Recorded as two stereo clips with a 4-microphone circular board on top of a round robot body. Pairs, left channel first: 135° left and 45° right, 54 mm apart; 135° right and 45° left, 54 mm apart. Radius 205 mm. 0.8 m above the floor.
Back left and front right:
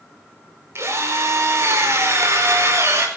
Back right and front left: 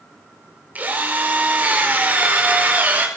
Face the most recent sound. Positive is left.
turn(degrees=-15)